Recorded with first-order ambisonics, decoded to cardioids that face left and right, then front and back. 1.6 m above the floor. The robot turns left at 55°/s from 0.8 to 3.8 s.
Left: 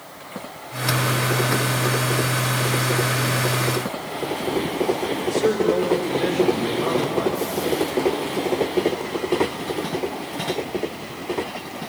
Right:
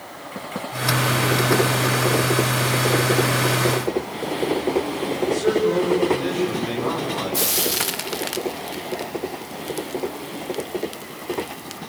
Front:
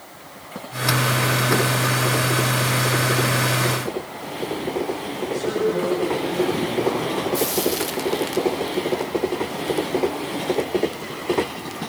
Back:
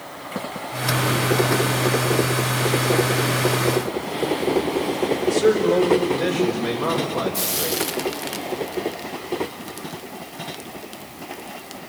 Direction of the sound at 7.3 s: 100° right.